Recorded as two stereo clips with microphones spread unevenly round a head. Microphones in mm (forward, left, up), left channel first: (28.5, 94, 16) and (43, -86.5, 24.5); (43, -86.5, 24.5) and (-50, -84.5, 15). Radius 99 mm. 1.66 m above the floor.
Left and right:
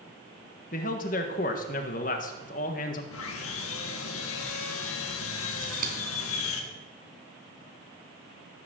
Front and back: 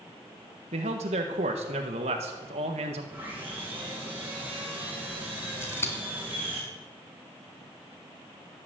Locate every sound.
0.7 s a man speaking: 145° left, 1.4 m
3.1 s sawing: 95° left, 1.7 m
5.6 s scissors: 55° right, 3 m